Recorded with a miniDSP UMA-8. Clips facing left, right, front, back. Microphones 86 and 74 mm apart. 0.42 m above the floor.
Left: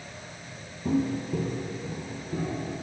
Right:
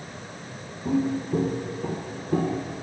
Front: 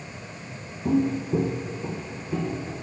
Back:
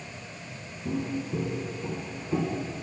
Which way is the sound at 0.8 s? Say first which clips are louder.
Right 2 dB, front 8 dB; 5° right.